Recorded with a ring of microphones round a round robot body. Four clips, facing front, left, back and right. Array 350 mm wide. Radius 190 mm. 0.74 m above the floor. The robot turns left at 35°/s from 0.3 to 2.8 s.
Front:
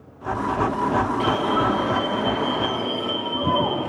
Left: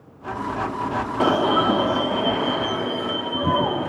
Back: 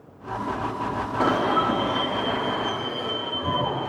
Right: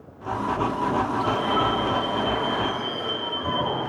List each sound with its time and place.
1.2 s an alarm: 105° left, 1.4 m; by 3.9 s 50° left, 1.4 m